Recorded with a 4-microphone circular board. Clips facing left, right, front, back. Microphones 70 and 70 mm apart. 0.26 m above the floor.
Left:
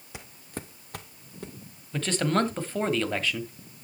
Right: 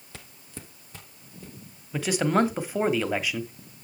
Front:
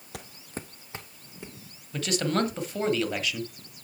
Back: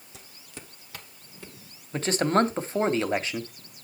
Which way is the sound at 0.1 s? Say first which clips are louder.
Left 5 dB, front 8 dB; 15° left.